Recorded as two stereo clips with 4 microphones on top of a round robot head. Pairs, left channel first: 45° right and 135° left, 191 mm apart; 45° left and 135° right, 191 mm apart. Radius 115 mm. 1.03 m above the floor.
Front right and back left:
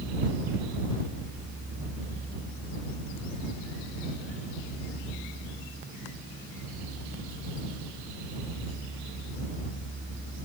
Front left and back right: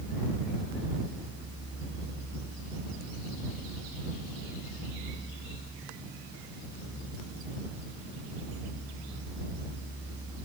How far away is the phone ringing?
No phone ringing in this recording.